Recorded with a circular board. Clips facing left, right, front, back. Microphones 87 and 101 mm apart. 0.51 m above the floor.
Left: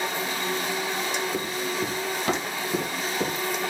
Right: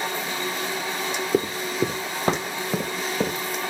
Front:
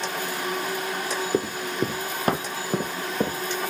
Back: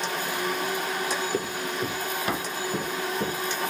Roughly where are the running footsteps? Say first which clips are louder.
Right 5 dB, front 3 dB; ahead right.